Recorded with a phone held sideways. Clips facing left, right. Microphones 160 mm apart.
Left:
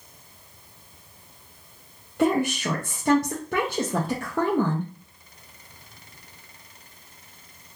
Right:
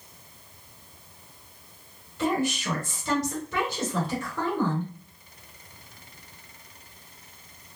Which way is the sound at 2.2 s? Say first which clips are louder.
Left 4 dB; 55° left (ahead or behind).